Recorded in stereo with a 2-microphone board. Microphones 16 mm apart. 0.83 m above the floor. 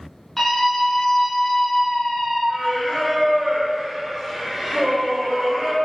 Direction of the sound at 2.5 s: 40° right (ahead or behind).